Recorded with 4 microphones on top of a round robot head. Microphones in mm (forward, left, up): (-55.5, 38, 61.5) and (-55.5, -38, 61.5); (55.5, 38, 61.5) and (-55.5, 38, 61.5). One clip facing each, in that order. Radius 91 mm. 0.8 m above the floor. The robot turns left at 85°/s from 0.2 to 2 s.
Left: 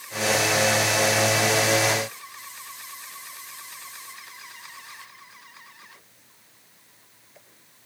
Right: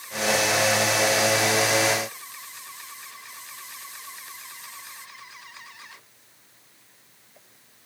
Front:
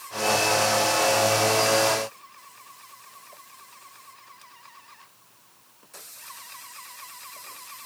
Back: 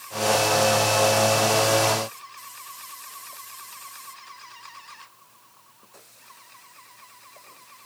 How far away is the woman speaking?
No woman speaking in this recording.